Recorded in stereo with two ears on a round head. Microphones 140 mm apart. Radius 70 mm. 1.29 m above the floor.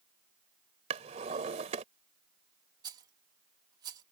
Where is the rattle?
25° right (ahead or behind).